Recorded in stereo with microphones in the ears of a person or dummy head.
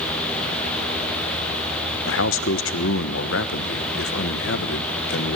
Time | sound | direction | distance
2.0 | a man speaking | 70° left (ahead or behind) | 1.3 m